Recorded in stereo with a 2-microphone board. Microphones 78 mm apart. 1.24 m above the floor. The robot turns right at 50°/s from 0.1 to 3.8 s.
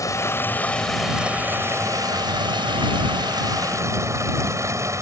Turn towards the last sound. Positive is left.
turn(degrees=-40)